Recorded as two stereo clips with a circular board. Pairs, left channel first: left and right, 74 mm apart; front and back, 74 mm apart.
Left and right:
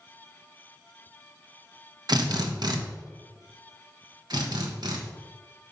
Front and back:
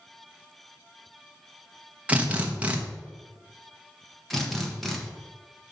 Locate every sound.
2.1 s a drill: 110° right, 1.0 m
4.3 s a drill: 90° right, 1.3 m